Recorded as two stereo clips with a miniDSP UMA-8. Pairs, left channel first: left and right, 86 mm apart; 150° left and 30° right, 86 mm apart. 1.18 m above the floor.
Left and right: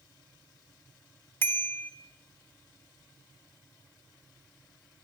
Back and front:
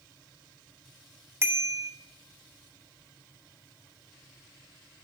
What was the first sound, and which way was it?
A bicycle bell, 30° left.